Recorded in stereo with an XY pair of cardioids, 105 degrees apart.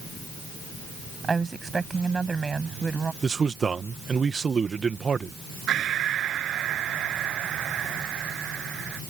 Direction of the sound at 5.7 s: 65° right.